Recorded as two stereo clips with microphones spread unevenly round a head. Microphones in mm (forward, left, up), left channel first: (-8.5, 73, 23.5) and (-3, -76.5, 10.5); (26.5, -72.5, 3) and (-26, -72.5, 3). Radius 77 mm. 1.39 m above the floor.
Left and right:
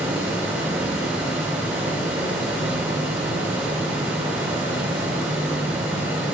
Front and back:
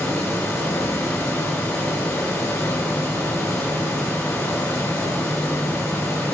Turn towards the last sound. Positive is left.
turn(degrees=-10)